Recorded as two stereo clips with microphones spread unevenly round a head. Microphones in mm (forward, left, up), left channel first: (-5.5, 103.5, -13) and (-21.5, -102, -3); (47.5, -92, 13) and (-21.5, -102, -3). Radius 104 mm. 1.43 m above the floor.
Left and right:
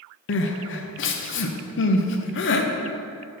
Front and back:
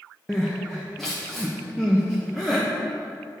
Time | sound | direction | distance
0.3 | crying | 85° left | 0.6 m